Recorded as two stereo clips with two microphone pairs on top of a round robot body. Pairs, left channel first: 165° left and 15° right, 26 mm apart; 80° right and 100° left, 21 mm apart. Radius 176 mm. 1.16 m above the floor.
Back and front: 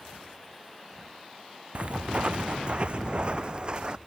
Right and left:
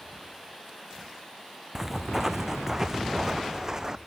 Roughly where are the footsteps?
Ahead left.